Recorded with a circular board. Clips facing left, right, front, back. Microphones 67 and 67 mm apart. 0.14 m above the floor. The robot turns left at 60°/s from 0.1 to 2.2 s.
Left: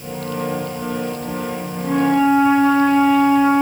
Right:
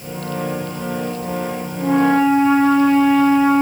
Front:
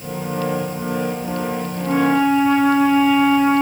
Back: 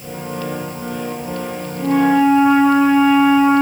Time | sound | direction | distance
1.8 | a flute | 80° right | 1.4 m